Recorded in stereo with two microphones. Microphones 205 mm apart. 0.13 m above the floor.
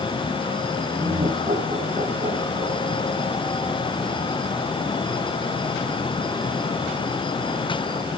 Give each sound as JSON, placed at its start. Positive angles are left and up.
{"t": 1.0, "sound": "laughter", "side_deg": -25, "distance_m": 7.0}